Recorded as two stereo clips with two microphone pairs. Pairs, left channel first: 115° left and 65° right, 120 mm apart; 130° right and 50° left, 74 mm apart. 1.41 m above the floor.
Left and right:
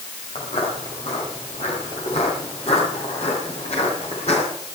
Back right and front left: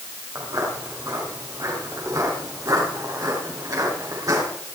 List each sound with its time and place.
0.3 s footsteps: 95° left, 8.5 m; by 4.4 s 90° left, 11 m